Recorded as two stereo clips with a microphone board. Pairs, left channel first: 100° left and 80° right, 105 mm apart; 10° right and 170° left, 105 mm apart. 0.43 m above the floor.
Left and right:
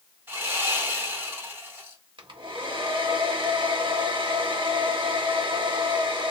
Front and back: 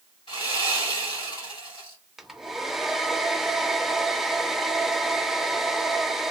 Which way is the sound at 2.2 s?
105° right.